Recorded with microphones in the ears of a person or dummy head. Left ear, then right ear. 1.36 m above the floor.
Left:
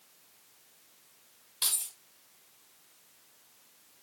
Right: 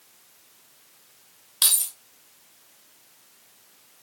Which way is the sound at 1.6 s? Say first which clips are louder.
Right 9 dB; 25° right (ahead or behind).